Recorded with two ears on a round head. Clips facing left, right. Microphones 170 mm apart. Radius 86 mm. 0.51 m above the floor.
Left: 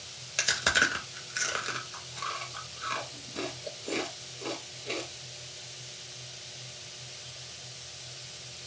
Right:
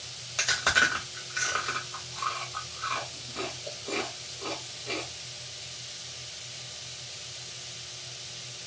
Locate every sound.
0.4 s chewing: 25° left (ahead or behind), 0.6 m